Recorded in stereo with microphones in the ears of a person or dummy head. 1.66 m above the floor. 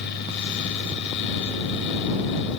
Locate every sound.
0.0 s a fan: 65° left (ahead or behind)